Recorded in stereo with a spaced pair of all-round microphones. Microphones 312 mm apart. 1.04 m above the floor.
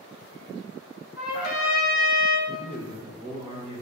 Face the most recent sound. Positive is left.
turn(degrees=-20)  # may be behind; listen again after turning